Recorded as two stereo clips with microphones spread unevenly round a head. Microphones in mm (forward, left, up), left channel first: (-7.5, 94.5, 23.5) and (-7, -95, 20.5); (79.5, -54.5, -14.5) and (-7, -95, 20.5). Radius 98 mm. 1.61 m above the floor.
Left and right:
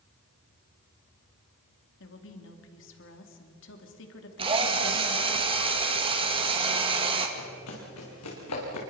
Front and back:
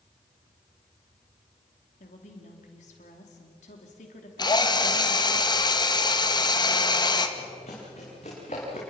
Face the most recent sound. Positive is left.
turn(degrees=90)